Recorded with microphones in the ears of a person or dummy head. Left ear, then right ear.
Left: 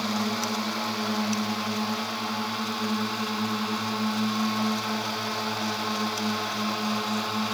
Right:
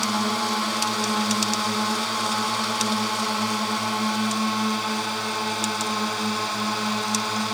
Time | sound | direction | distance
0.0 | a drone | 40° right (ahead or behind) | ?